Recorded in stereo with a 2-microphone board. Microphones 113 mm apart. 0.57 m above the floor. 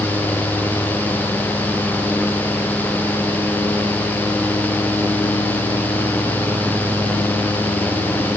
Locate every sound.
Only background noise.